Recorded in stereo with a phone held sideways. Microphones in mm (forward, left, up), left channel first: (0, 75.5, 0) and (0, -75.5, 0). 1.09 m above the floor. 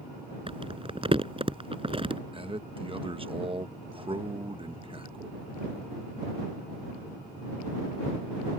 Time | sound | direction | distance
0.5 | crumpling | 35° right (ahead or behind) | ?
2.3 | a man speaking | 35° right (ahead or behind) | ?